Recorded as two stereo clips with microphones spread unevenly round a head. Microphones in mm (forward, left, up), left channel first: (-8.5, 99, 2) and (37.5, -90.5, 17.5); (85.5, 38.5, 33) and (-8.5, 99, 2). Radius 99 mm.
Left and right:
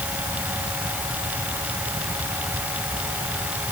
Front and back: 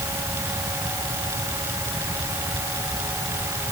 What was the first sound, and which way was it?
Only background noise.